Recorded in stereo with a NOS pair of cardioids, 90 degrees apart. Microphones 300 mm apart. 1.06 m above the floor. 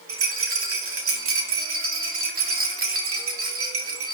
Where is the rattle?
50° right, 2 m.